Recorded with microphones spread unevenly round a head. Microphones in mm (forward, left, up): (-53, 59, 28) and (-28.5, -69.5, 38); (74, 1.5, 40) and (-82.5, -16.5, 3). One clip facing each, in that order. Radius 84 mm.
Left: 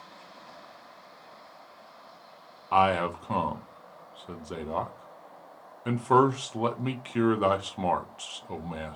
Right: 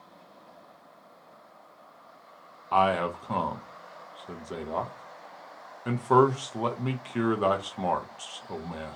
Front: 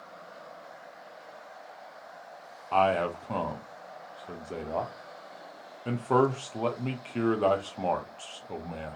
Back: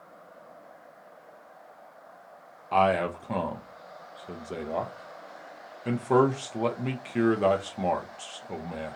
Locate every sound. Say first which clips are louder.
2.7 s a man speaking: even, back 1 dB; 175° left, 0.5 m